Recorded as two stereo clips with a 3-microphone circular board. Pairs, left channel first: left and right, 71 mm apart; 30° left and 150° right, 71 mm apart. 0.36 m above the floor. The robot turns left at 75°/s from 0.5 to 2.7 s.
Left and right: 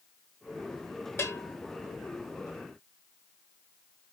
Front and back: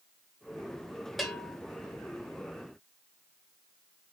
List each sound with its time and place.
1.2 s a bell: 120° left, 0.9 m; by 1.6 s 90° left, 0.9 m